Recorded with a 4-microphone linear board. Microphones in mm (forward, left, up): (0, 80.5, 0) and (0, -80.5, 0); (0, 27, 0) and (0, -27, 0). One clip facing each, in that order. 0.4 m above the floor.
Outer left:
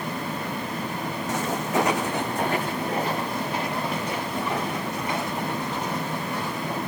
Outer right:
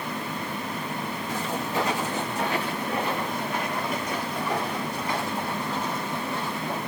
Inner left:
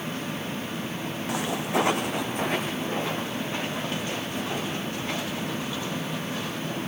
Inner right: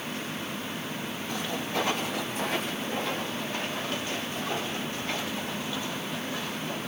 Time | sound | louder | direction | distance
1.3 | footsteps | outer left 4 dB, inner left 5 dB | 75° left (ahead or behind) | 1.5 m